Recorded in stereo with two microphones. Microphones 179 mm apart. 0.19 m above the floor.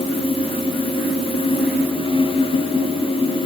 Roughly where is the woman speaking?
I don't hear a woman speaking.